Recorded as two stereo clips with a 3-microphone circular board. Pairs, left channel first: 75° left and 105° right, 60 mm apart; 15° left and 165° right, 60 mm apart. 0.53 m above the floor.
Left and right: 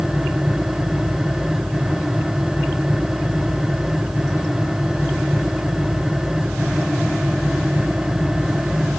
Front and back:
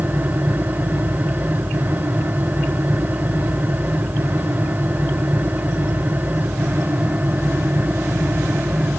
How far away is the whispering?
I don't hear whispering.